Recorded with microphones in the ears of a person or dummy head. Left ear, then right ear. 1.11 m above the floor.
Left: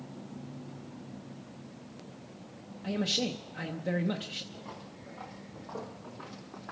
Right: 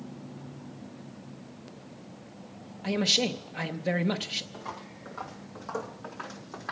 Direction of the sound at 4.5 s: 45° right (ahead or behind).